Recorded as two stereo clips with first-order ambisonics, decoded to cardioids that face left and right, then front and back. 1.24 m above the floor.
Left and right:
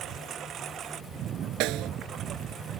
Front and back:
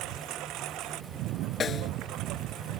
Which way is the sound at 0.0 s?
145° right.